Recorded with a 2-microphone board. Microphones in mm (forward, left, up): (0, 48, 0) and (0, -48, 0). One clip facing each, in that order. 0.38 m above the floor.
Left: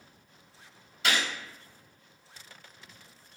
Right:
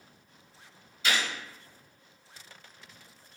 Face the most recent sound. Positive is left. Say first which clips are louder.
# left 1 dB
turn(degrees=65)  # may be behind; listen again after turning